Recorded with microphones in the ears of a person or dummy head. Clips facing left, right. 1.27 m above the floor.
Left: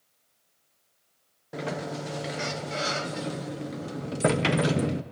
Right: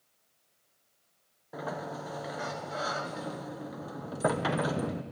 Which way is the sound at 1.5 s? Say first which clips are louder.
Left 5 dB; 35° left (ahead or behind).